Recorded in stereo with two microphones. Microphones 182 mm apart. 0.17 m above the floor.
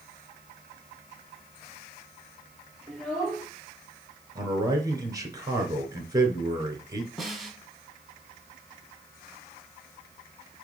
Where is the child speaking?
Centre (ahead or behind), 3.5 m.